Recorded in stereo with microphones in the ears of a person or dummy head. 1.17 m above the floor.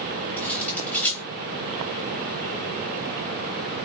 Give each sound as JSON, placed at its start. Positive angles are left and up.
{"t": 0.4, "sound": "cutlery clinking", "side_deg": 10, "distance_m": 3.5}